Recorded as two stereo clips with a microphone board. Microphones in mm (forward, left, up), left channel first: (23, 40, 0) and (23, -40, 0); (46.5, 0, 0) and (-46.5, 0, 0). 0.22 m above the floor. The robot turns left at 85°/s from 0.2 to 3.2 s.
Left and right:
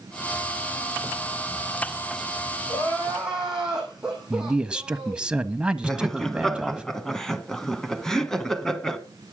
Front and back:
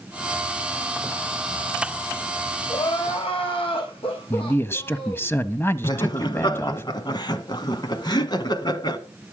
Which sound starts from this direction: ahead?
Laughter, at 5.8 s.